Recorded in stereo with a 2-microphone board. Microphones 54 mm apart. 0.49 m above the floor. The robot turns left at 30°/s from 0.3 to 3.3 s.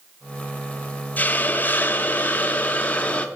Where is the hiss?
110° left, 0.6 m; by 3.3 s 45° left, 0.6 m.